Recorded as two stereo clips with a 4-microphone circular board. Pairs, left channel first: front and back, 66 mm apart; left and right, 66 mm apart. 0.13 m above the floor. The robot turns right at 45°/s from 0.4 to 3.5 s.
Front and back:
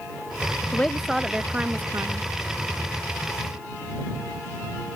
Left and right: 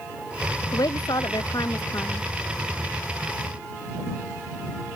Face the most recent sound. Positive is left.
turn(degrees=-165)